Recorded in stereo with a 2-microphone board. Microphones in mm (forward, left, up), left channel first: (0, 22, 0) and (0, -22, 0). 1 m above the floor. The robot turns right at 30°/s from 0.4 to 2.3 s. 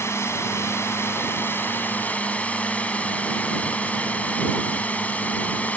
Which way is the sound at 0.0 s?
80° left.